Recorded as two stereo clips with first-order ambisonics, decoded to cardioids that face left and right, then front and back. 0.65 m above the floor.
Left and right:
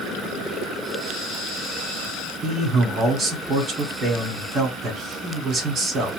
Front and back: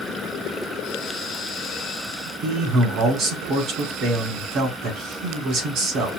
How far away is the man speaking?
About 1.8 m.